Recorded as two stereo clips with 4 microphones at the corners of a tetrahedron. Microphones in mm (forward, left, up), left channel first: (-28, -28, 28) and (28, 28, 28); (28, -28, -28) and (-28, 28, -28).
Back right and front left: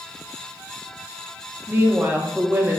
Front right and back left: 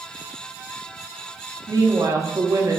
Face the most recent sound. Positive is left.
turn(degrees=105)